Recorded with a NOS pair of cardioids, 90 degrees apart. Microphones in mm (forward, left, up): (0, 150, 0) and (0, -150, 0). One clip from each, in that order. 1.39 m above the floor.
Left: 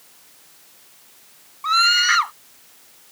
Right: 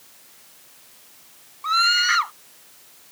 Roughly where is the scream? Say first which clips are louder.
Left 2 dB; ahead left.